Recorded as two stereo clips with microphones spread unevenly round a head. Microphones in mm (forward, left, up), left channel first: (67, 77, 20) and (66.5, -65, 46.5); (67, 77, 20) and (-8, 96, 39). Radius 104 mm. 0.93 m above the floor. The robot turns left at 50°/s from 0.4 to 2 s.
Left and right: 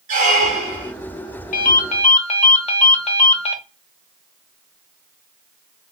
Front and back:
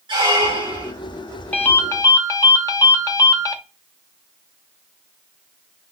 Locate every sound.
0.1 s a squeak: 140° right, 0.6 m; by 0.9 s 165° right, 0.6 m
1.5 s a ringtone: 65° left, 0.8 m; by 3.6 s 40° left, 0.8 m